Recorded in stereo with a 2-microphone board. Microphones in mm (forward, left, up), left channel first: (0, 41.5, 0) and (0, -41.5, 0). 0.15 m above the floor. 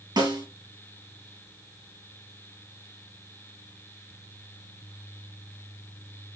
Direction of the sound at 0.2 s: 60° right (ahead or behind).